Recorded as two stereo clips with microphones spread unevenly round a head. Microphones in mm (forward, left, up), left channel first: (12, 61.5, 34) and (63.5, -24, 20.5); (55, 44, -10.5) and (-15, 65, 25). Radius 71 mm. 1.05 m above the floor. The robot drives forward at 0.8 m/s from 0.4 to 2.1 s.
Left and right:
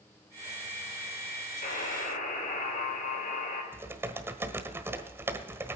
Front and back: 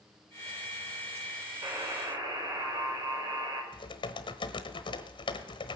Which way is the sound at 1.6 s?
125° left.